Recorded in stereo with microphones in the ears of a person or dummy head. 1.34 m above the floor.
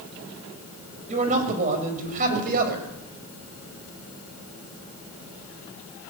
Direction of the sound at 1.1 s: 35° right (ahead or behind).